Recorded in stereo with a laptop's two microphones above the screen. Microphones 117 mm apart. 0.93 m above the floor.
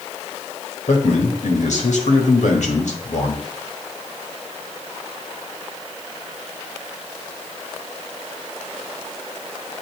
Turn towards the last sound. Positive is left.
turn(degrees=70)  # may be behind; listen again after turning